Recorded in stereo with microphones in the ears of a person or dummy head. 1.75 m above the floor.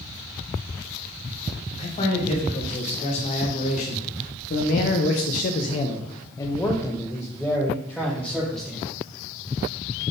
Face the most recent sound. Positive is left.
turn(degrees=-10)  # may be behind; listen again after turning